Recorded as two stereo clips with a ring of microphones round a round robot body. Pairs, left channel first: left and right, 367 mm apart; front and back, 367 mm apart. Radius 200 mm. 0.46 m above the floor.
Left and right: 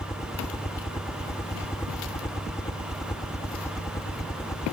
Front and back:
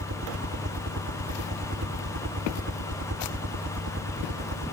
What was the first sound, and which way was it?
A helicopter, 165° left.